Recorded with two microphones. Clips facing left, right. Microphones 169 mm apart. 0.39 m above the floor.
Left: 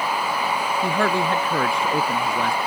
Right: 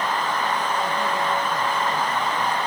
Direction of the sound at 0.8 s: 75° left (ahead or behind).